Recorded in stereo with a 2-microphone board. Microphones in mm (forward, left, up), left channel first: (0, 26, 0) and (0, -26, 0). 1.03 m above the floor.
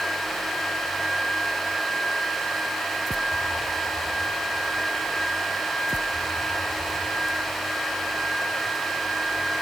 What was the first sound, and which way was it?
Only background noise.